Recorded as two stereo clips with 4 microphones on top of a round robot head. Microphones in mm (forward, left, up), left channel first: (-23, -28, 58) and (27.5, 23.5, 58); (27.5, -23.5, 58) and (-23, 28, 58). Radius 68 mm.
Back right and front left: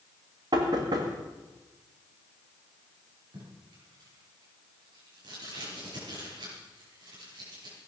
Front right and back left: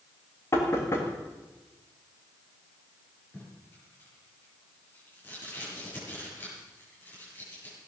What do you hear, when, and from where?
0.5 s knocking: 10° left, 2 m
3.3 s tape being pulled: 20° left, 6.5 m